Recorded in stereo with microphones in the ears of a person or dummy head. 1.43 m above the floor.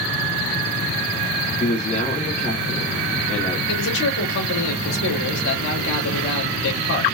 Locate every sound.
1.6 s a man speaking: 40° left (ahead or behind), 1.3 m
3.7 s a man speaking: 65° left (ahead or behind), 2.5 m